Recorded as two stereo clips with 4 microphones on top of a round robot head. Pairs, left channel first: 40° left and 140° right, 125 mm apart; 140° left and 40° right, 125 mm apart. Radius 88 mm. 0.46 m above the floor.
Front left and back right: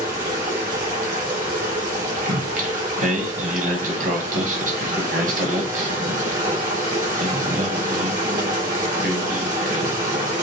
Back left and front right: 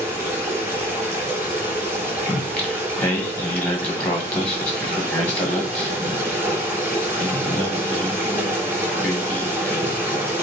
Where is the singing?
140° right, 1.5 m.